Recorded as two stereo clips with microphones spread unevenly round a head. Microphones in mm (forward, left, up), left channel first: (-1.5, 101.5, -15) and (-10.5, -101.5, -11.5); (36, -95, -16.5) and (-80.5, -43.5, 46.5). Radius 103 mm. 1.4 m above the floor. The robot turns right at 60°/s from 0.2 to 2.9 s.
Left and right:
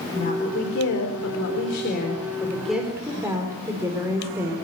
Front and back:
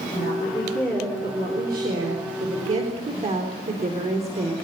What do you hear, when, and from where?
0.1 s a woman speaking: 30° left, 4 m; by 4.5 s 170° right, 4 m